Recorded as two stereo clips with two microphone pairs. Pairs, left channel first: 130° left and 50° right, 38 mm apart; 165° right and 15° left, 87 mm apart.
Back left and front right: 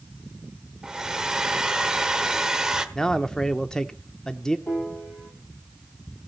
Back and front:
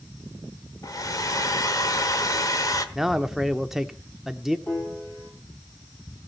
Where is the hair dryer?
125° right, 1.2 m.